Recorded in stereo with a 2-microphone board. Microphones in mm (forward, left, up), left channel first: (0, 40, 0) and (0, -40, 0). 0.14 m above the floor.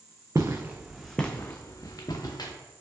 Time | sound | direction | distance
0.3 | footsteps | 40° right (ahead or behind) | 0.6 m